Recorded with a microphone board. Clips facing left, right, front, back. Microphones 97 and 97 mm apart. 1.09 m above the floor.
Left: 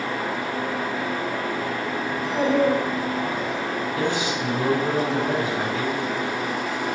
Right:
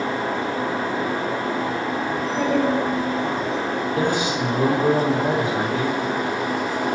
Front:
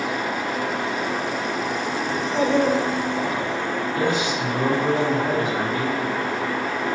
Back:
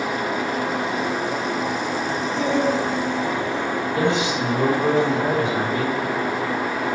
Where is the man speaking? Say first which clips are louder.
Right 3 dB, back 2 dB; 120° right, 4 m.